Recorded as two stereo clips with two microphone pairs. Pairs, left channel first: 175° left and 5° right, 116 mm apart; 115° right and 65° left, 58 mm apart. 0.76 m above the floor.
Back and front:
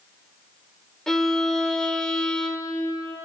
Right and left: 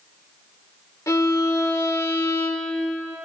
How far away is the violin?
About 1.3 m.